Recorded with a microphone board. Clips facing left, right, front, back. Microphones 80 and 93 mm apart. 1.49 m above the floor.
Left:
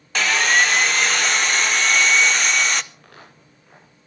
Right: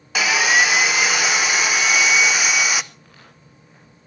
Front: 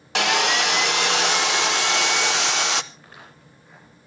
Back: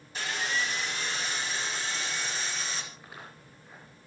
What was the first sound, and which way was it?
Sawing, 10° right.